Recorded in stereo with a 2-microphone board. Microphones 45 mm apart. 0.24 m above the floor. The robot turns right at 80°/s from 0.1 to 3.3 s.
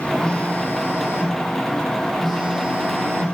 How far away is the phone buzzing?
About 5 m.